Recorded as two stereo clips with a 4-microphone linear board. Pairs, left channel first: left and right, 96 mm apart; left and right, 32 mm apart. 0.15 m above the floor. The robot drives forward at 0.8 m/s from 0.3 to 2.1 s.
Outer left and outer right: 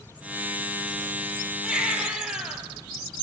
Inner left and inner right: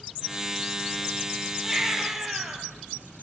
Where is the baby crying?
5° right (ahead or behind), 3 m; by 2.6 s 10° right (ahead or behind), 3 m.